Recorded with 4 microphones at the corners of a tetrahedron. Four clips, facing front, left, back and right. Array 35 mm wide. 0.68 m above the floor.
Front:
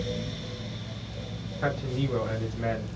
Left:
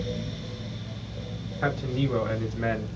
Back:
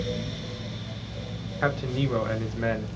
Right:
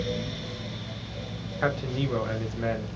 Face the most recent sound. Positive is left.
turn(degrees=150)